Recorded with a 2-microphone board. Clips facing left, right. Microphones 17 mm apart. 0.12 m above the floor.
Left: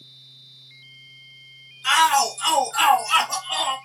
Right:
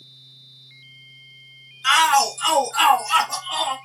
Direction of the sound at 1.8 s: 20° right (ahead or behind).